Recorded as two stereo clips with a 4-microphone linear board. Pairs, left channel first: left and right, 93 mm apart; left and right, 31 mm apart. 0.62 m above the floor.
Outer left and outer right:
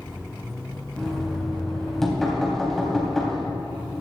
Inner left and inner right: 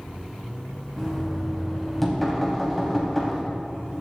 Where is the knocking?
5° left (ahead or behind), 3 m.